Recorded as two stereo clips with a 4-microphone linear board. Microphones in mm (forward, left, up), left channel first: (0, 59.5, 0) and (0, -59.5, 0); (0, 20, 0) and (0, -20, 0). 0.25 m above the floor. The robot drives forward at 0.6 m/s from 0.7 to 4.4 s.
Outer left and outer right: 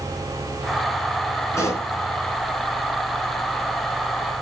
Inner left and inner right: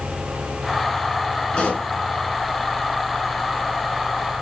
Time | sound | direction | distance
1.5 | a pop | 25° left (ahead or behind) | 3 m